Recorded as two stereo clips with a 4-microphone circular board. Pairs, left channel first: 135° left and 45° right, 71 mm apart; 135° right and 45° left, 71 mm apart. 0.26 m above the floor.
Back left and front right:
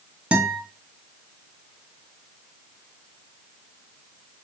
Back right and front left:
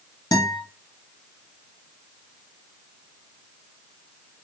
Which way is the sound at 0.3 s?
115° right.